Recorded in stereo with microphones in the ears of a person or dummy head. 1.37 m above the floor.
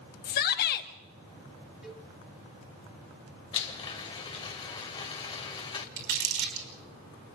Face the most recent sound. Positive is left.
turn(degrees=-60)  # may be behind; listen again after turning